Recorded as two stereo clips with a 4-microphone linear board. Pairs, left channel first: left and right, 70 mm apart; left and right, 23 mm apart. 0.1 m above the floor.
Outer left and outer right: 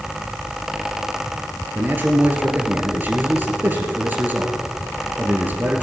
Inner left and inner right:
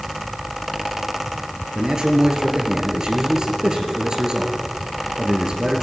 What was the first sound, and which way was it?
A man speaking, 25° right (ahead or behind).